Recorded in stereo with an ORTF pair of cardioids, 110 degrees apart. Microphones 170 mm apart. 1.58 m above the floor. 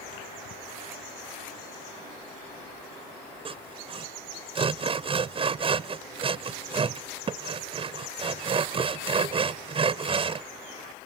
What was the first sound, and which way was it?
Sawing, 35° right.